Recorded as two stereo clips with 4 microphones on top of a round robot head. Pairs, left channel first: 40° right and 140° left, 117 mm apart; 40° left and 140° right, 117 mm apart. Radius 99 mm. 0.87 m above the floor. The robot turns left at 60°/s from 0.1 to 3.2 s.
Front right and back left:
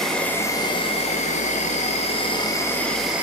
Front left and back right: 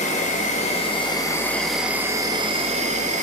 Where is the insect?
45° left, 0.9 m; by 3.2 s 140° right, 0.9 m.